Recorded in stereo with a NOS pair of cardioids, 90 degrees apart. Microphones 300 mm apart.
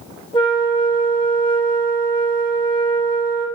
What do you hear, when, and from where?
0.3 s a flute: 15° left, 0.6 m